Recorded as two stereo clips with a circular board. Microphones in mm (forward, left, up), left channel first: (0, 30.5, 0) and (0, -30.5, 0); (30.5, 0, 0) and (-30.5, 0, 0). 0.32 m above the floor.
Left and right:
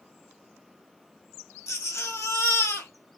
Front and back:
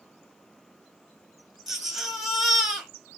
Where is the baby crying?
95° left, 1.4 m.